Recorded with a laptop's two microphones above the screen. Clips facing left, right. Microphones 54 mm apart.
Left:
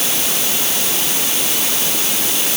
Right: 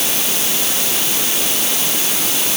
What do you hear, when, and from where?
Only background noise.